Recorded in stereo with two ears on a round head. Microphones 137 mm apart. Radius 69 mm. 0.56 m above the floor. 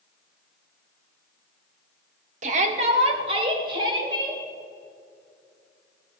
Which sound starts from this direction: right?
A shout, at 2.4 s.